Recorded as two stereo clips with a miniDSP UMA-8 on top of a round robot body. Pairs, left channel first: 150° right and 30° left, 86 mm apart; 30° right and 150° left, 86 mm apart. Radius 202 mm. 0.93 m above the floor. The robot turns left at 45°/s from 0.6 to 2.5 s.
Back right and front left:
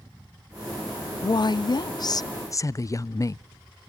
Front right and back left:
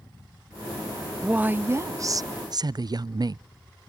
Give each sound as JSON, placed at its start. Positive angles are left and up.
{"t": 1.2, "sound": "a woman speaking", "azimuth_deg": -135, "distance_m": 0.5}